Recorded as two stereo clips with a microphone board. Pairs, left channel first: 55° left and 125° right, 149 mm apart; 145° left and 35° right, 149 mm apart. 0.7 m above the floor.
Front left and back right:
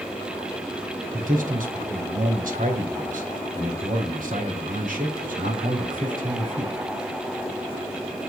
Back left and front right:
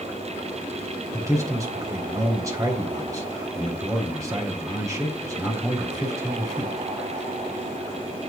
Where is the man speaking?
100° right, 3.5 m.